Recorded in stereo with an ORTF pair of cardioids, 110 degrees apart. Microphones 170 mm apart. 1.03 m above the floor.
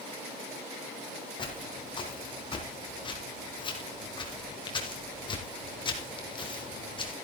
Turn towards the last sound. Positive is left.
turn(degrees=30)